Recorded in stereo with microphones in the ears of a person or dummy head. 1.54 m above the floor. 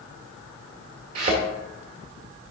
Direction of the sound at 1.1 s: 45° right (ahead or behind).